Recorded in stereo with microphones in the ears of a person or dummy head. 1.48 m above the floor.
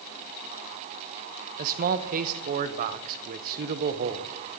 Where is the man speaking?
50° right (ahead or behind), 0.9 m.